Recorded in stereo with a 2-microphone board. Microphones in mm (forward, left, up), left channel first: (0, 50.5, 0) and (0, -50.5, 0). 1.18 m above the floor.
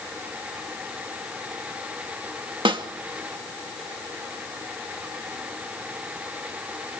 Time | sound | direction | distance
2.6 | a snare drum | 60° right (ahead or behind) | 2 m